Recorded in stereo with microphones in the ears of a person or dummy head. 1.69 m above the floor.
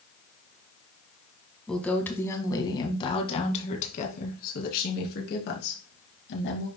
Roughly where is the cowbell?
I don't hear a cowbell.